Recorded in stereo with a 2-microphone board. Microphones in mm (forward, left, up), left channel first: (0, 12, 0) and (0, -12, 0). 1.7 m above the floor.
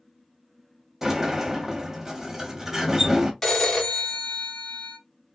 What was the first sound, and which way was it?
A sliding door, 15° right (ahead or behind).